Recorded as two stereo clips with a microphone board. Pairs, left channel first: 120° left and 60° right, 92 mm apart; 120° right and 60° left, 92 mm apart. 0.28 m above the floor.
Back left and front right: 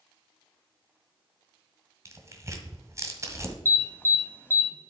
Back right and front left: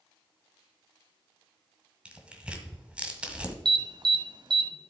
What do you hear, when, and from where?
2.0 s tearing paper: 15° right, 1.4 m
3.6 s an alarm: 60° left, 1.0 m